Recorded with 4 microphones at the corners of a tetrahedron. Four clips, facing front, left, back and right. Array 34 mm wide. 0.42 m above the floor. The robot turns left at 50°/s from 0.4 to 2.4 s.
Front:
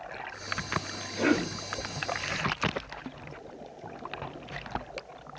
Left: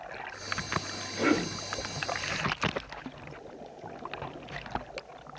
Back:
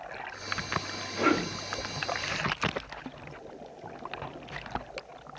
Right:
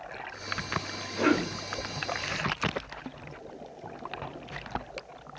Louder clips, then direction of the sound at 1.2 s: Right 1 dB, even; 110° right.